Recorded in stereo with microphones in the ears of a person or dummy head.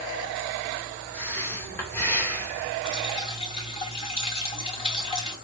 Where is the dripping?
30° left (ahead or behind), 3.5 m.